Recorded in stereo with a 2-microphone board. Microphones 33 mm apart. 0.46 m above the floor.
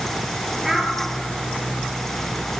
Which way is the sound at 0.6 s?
10° right (ahead or behind).